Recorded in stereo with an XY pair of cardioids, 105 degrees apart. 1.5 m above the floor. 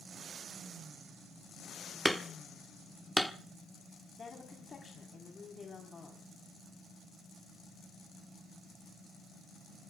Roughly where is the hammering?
Ahead.